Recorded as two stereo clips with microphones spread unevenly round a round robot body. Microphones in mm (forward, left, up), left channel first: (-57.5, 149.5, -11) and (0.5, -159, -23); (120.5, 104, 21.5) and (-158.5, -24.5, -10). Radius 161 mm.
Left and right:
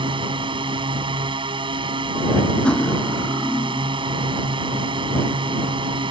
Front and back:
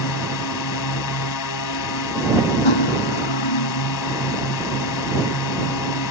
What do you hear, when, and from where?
0.0 s a drone: 5° right
2.6 s cutlery clinking: 15° left